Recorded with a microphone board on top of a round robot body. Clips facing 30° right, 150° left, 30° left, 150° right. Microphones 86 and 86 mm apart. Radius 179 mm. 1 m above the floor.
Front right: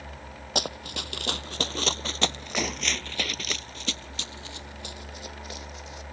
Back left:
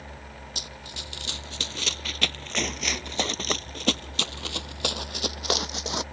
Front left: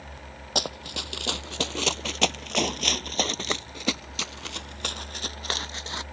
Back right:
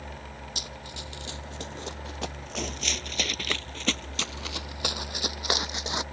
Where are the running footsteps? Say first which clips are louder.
Front right 9 dB, front left 8 dB; straight ahead; by 6.0 s 140° left.